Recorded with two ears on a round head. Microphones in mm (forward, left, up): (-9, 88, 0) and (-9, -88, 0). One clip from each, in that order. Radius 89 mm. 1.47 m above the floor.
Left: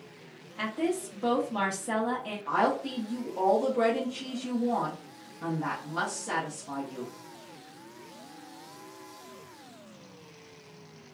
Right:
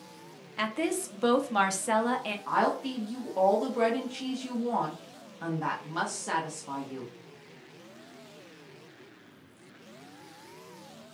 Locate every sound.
0.6 s a woman speaking: 60° right (ahead or behind), 0.7 m
2.5 s a woman speaking: 50° right (ahead or behind), 0.8 m